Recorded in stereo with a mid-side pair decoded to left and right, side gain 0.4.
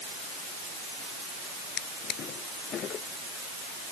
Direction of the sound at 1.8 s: 70° left.